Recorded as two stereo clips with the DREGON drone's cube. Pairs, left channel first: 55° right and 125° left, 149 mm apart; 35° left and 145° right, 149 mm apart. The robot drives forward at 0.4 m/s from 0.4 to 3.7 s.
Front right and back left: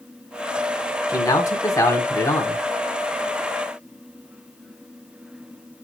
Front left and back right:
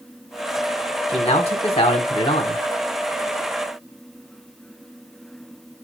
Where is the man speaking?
5° left, 1.6 m.